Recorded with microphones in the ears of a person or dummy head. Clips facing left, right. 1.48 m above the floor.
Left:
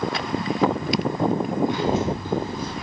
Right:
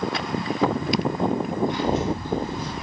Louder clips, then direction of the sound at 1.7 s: Left 1 dB; 60° left (ahead or behind).